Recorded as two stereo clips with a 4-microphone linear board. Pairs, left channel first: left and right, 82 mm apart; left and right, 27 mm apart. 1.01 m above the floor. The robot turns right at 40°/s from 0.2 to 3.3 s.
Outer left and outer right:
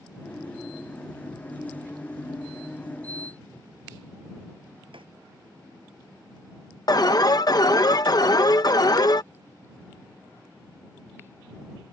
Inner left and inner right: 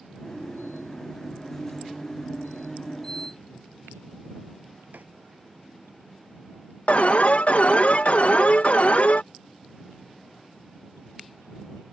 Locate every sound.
4.9 s writing: 85° right
6.9 s an alarm: 50° left (ahead or behind)